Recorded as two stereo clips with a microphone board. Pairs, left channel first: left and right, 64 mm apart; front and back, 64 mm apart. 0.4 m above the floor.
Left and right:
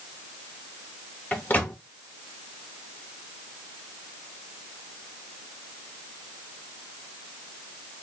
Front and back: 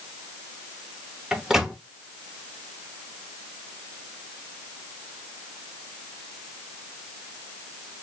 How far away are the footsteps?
No footsteps in this recording.